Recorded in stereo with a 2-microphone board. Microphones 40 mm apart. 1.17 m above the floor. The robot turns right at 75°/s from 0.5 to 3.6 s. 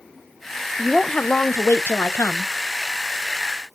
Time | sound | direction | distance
0.8 | a woman speaking | 5° right | 0.6 m